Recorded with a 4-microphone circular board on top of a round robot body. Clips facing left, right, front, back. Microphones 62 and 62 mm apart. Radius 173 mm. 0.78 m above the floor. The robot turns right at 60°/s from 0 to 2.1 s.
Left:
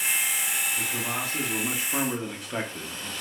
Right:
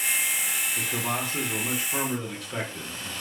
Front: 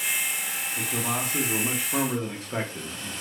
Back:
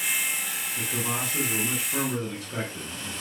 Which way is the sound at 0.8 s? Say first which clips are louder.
Right 1 dB, front 1 dB; 55° right.